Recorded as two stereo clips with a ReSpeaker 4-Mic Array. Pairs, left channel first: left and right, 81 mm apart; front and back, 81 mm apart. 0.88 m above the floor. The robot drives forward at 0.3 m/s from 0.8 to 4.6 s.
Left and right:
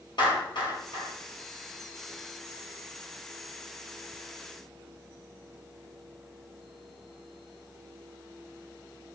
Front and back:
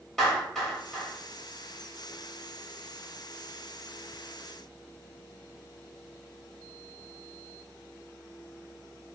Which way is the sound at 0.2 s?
85° left.